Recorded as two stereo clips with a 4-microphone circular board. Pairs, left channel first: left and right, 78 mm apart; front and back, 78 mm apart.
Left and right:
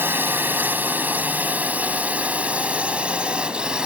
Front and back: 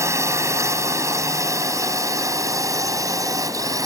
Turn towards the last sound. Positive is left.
turn(degrees=-165)